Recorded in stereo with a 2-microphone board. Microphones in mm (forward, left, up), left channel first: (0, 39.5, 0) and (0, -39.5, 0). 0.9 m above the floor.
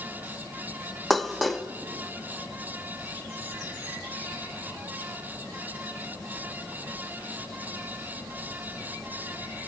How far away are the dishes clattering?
About 0.6 m.